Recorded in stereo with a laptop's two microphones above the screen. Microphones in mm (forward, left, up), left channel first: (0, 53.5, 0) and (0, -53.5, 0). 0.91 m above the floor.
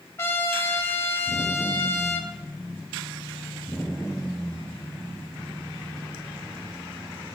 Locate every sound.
0.2 s a trumpet: 25° left (ahead or behind), 0.8 m